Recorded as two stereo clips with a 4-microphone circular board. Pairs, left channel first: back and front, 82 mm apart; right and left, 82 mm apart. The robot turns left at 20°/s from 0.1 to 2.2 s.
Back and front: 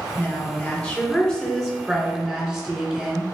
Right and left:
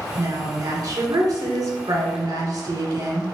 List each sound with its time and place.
0.2 s a woman speaking: 120° left, 1.6 m; by 3.2 s 75° left, 1.6 m